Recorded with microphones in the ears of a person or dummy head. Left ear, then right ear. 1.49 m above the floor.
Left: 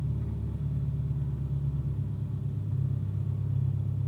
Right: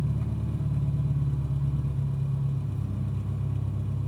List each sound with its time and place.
0.0 s an engine running: 40° right (ahead or behind), 3 m